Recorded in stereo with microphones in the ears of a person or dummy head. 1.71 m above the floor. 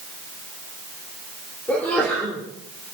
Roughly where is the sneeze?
Centre.